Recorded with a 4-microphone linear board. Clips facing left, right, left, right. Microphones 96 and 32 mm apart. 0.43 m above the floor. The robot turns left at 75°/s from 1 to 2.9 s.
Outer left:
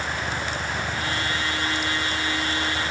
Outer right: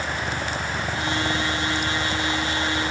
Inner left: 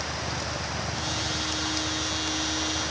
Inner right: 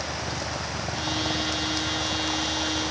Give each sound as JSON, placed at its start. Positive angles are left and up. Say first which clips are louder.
{"t": 0.0, "sound": "a helicopter", "louder": "outer right 1 dB, inner right 1 dB", "side_deg": -15}